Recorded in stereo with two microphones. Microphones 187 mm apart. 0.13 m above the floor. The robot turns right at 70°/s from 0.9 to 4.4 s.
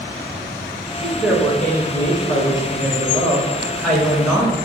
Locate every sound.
1.0 s a woman speaking: 10° right (ahead or behind), 1.1 m; by 4.5 s 15° right (ahead or behind), 1.1 m